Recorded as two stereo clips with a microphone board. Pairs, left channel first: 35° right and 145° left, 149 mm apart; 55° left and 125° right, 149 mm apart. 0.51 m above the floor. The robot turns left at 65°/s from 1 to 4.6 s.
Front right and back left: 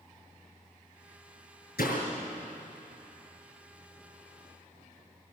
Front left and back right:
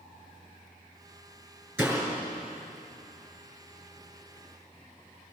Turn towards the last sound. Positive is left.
turn(degrees=130)